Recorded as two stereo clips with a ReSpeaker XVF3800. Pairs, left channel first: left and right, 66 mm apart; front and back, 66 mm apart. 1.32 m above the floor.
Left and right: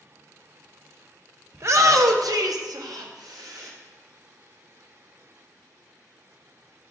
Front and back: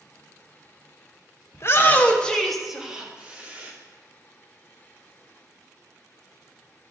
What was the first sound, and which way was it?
A shout, 45° right.